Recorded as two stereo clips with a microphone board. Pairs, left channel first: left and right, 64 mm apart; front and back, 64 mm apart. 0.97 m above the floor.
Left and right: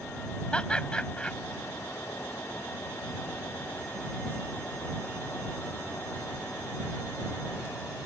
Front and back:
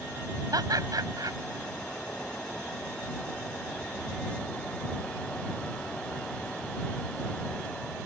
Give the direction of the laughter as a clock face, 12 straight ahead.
6 o'clock.